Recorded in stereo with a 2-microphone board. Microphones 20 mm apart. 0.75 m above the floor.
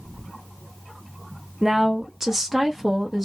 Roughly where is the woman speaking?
Centre.